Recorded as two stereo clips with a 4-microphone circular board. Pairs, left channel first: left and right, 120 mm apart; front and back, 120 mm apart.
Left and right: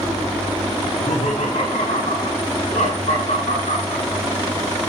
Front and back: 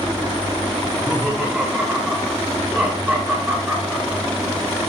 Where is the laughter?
100° left, 6 m.